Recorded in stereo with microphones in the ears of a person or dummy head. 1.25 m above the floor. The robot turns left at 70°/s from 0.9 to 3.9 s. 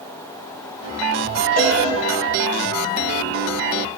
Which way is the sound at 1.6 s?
40° left (ahead or behind).